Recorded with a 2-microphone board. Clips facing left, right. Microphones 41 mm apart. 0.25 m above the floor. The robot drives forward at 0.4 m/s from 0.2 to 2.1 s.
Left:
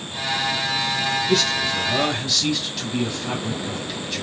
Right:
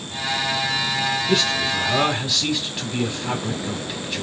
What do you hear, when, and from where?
1.3 s a man speaking: 30° right (ahead or behind), 1.4 m; by 4.2 s 25° right (ahead or behind), 1.6 m